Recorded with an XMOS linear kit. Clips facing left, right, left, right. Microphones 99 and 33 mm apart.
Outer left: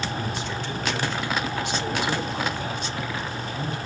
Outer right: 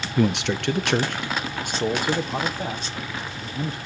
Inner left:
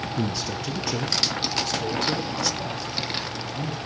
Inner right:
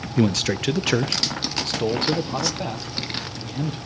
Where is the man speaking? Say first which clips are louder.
Outer right 8 dB, inner right 10 dB; 75° right (ahead or behind), 0.5 m; by 3.8 s 35° right (ahead or behind), 2 m.